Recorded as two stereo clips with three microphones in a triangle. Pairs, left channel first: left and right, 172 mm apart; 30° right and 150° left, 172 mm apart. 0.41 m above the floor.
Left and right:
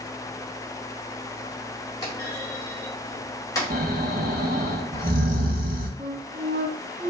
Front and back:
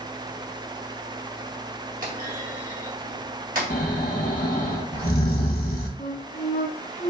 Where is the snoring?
60° right, 1.4 m.